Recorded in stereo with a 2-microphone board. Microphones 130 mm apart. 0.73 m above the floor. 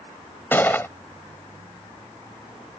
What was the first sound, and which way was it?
A gunshot, 15° left (ahead or behind).